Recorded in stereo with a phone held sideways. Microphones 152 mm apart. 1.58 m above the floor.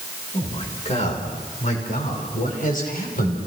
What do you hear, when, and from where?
0.3 s a man speaking: 45° left (ahead or behind), 6 m; by 3.4 s 65° left (ahead or behind), 6 m